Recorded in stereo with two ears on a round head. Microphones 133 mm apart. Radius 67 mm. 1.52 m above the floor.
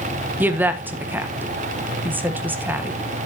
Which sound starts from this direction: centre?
A woman speaking, at 0.4 s.